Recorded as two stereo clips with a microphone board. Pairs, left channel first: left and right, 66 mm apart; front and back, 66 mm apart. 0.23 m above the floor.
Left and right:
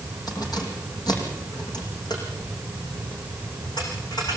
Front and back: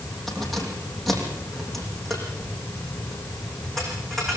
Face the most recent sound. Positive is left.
turn(degrees=85)